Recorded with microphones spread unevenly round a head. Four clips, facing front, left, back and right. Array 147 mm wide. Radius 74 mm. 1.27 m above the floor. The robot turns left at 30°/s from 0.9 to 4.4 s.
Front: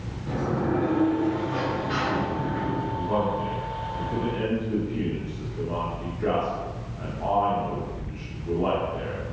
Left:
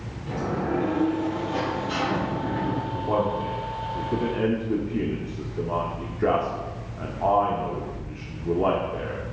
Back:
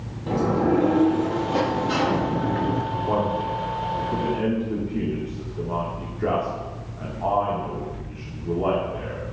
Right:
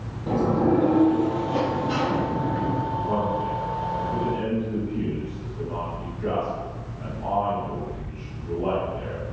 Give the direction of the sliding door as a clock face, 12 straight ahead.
5 o'clock.